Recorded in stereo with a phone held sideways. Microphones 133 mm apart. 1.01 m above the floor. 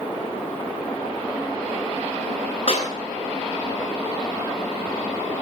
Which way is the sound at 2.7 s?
50° left (ahead or behind).